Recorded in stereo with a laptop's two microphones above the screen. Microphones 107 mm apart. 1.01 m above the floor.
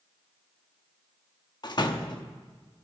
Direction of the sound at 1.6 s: 45° left (ahead or behind).